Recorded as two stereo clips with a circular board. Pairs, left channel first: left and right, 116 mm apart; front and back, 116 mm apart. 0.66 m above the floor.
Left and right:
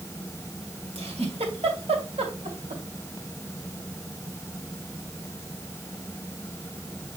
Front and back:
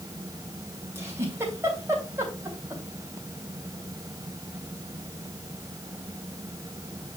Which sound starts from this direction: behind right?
A giggle, at 0.9 s.